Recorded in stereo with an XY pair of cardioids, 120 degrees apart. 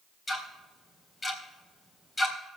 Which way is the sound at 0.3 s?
25° left.